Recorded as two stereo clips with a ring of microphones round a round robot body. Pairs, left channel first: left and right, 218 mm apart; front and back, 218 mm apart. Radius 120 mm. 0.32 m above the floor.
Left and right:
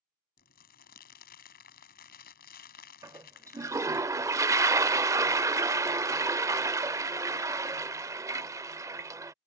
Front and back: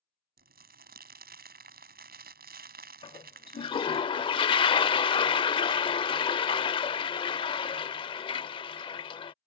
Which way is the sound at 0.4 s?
140° left.